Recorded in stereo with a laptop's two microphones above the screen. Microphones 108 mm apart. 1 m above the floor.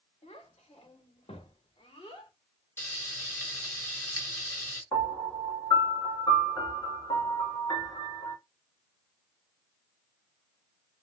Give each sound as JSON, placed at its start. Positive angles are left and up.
{"t": 0.2, "sound": "a child speaking", "side_deg": 75, "distance_m": 1.4}
{"t": 2.8, "sound": "frying", "side_deg": 25, "distance_m": 3.5}
{"t": 4.9, "sound": "a piano", "side_deg": 40, "distance_m": 2.5}